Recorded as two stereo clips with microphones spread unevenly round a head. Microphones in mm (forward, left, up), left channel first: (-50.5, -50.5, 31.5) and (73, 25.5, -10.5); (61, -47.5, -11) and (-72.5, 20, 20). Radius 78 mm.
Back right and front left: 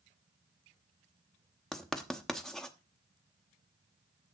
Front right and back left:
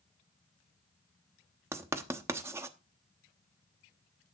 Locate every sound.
1.7 s writing: 165° left, 0.9 m